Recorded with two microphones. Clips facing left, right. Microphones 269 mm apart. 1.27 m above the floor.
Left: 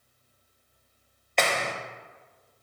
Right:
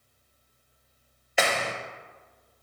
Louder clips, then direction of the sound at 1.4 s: Even; 5° right (ahead or behind).